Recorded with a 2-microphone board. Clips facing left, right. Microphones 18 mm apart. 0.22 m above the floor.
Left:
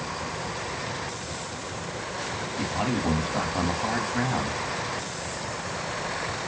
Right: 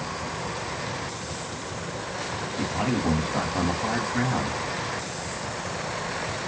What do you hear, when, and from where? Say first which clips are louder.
2.6 s a man speaking: right 1 dB; 5° left (ahead or behind), 1.2 m